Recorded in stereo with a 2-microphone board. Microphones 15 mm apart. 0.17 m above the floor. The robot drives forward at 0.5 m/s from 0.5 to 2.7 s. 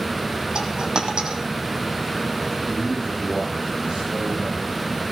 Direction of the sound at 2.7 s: 80° right.